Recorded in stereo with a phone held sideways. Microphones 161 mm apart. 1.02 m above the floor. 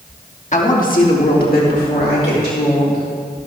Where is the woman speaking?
50° left (ahead or behind), 1.3 m; by 3.0 s 75° left (ahead or behind), 3.5 m.